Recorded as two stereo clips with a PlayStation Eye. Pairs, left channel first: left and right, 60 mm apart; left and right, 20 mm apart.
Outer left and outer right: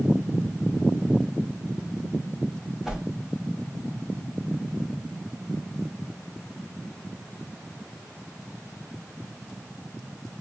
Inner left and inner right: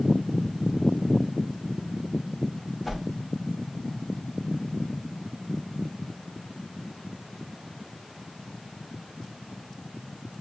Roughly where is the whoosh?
Centre.